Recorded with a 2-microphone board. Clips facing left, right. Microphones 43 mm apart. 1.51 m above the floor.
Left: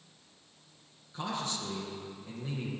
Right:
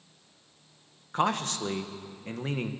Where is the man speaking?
55° right (ahead or behind), 1.2 m.